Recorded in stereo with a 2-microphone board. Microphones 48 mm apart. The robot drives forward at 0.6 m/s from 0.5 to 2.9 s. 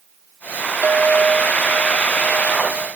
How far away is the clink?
About 1.4 m.